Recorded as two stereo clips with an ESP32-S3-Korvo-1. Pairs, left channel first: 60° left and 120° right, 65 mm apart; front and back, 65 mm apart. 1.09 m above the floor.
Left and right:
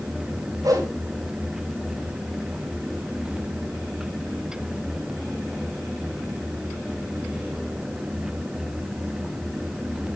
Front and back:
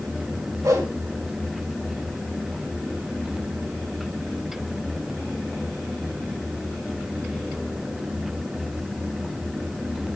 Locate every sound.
0.6 s a whoosh: 150° right, 3 m